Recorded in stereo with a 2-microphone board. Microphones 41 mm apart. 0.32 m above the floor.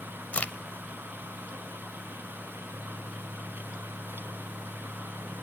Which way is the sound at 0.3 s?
40° left (ahead or behind).